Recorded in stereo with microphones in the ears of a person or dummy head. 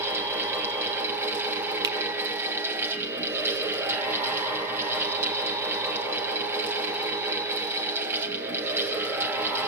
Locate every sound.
0.0 s a fan: 10° right (ahead or behind), 2 m
1.8 s a finger snap: 20° right (ahead or behind), 1.3 m